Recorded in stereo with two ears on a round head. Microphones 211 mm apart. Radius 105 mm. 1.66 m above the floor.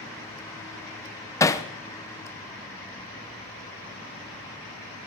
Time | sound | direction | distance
1.4 | hammering | 15° left (ahead or behind) | 0.8 m